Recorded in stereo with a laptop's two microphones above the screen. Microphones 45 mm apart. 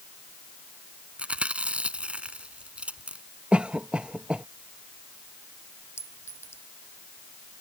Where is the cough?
25° right (ahead or behind).